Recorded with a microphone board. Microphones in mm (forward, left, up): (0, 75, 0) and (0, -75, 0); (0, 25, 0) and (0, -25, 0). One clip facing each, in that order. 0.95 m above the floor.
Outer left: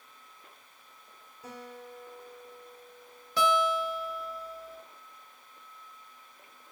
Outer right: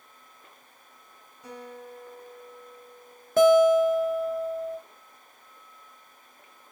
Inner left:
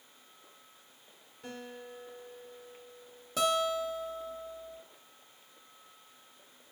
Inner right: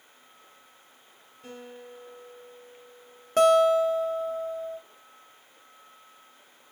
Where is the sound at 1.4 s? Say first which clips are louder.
Outer right 3 dB, inner right 1 dB; 5° left (ahead or behind), 2.5 m.